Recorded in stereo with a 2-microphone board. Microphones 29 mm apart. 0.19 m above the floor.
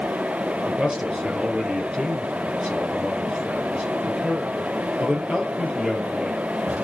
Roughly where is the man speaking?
Right.